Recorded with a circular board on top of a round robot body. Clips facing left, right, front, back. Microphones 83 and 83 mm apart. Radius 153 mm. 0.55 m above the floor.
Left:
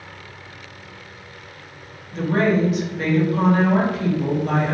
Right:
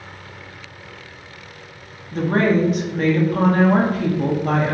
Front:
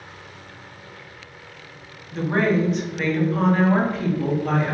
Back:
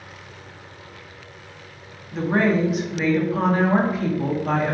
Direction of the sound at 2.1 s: 100° right.